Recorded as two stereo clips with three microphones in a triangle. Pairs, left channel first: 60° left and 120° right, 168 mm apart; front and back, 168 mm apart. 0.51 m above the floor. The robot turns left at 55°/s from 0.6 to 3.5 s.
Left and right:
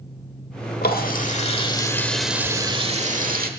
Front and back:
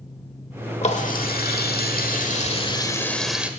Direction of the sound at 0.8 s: 45° left.